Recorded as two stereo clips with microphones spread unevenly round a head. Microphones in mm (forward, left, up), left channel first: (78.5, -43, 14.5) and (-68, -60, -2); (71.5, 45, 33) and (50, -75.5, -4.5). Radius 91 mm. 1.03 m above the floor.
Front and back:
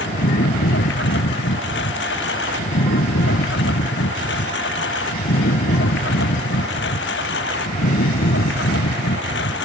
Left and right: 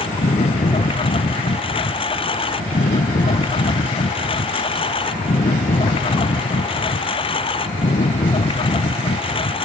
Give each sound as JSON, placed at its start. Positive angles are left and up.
{"t": 0.0, "sound": "a lawn mower", "azimuth_deg": 35}